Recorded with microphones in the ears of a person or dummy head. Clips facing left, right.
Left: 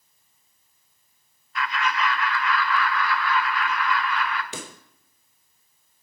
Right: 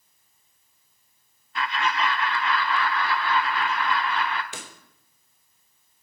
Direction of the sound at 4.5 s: 60° left (ahead or behind).